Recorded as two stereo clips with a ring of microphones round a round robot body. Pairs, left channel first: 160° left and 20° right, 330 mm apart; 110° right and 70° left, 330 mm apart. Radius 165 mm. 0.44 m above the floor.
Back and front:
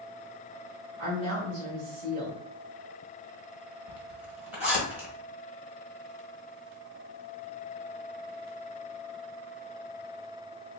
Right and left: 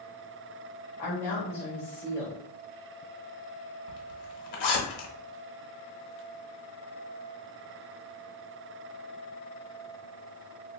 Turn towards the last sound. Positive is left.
turn(degrees=-110)